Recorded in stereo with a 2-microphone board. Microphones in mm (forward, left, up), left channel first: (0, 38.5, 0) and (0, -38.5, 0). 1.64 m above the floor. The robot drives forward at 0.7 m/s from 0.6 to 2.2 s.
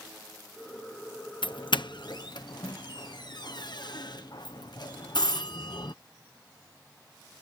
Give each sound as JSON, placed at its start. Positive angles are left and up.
{"t": 1.4, "sound": "a doorbell", "side_deg": 75}